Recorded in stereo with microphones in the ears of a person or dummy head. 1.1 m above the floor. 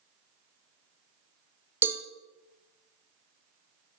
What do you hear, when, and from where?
1.8 s a cowbell: 10° right (ahead or behind), 0.6 m